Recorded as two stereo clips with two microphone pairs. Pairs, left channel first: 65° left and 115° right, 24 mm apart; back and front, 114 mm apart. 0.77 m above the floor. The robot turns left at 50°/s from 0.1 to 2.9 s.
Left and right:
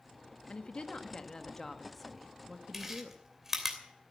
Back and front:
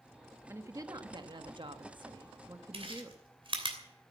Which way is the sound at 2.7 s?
30° right.